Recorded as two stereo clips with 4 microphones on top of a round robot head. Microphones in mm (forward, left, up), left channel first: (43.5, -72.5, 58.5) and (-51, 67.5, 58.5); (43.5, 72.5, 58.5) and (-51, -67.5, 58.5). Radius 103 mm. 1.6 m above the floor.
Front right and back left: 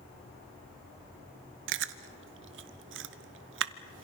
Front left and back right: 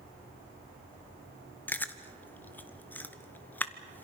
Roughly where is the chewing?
Behind left.